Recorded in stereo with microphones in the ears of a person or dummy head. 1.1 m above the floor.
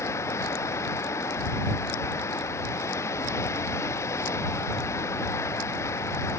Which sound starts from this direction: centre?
Running water, at 0.0 s.